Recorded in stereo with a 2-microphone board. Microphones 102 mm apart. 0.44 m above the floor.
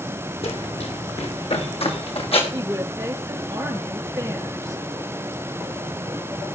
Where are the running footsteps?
70° left (ahead or behind), 1.7 m.